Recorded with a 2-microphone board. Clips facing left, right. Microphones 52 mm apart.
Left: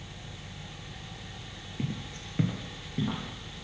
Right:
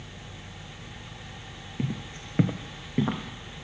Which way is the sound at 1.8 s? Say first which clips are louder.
Right 3 dB; 15° right (ahead or behind).